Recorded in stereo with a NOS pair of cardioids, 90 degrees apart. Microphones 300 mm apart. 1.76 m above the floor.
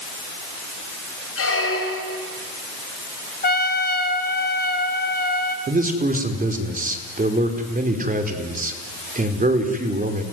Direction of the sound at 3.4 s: 30° left.